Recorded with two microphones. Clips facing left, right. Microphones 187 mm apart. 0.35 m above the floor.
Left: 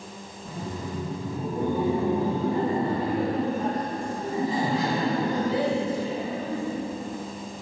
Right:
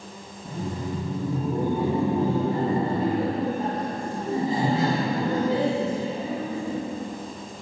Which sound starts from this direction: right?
Laughter, at 0.5 s.